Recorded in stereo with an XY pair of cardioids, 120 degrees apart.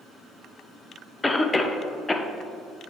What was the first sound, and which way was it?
A cough, 15° left.